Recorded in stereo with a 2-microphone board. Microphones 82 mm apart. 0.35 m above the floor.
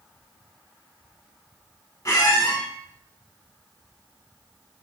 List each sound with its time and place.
2.0 s a squeak: 45° left (ahead or behind), 1.0 m